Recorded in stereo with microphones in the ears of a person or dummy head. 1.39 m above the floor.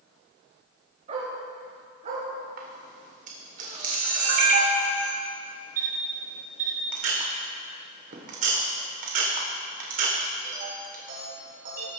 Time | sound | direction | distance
1.1 | a dog barking | 45° right (ahead or behind) | 4 m
2.6 | a camera shutter | 50° right (ahead or behind) | 1.8 m